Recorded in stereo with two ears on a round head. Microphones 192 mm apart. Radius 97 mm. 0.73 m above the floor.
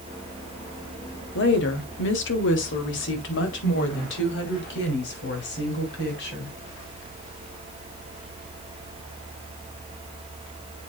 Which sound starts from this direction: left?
A woman speaking, at 1.4 s.